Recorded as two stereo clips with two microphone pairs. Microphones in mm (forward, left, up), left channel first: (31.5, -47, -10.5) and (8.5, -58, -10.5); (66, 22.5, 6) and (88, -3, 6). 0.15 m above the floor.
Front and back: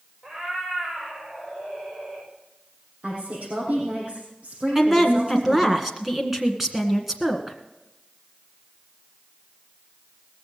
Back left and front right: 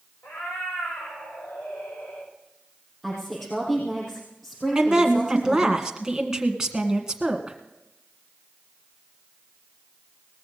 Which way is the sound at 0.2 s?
155° left.